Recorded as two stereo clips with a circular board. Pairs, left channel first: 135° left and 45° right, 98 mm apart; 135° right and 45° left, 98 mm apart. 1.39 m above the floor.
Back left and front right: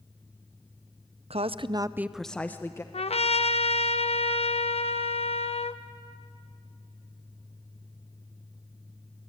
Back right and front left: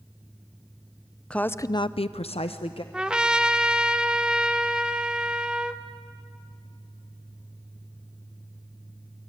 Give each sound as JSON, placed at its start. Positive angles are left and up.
{"t": 1.3, "sound": "a woman speaking", "azimuth_deg": -55, "distance_m": 0.7}
{"t": 2.9, "sound": "a trumpet", "azimuth_deg": 125, "distance_m": 0.8}